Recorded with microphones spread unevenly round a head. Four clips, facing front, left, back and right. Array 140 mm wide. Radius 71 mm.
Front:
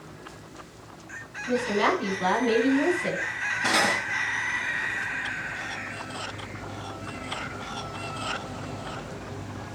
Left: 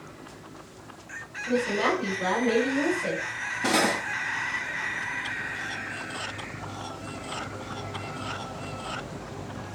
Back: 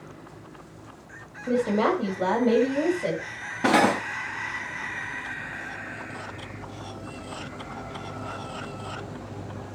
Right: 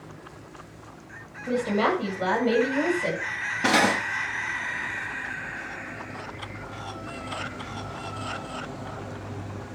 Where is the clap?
No clap in this recording.